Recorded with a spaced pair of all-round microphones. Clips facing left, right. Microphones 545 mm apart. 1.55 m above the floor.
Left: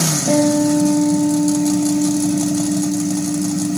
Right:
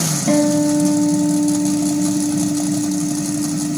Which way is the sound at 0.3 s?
25° right (ahead or behind).